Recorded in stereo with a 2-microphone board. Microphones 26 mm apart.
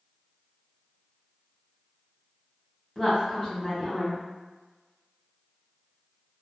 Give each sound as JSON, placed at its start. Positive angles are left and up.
{"t": 3.0, "sound": "a woman speaking", "side_deg": 15, "distance_m": 1.6}